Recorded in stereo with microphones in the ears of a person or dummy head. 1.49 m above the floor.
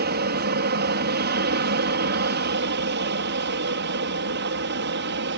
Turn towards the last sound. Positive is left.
turn(degrees=-55)  # may be behind; listen again after turning